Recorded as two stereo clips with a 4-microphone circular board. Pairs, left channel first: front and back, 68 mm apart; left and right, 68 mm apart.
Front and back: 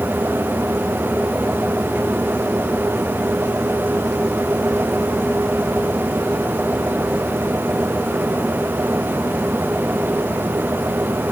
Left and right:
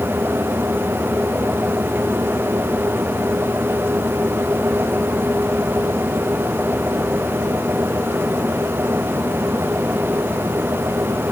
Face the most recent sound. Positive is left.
No sound to turn to.